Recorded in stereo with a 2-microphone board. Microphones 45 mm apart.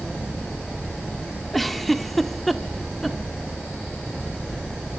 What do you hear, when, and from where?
1.5 s a giggle: 5° left (ahead or behind), 1.4 m